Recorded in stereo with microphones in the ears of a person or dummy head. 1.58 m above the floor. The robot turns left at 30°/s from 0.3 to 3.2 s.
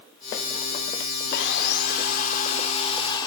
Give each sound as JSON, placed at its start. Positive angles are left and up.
{"t": 1.3, "sound": "sawing", "azimuth_deg": 85, "distance_m": 3.0}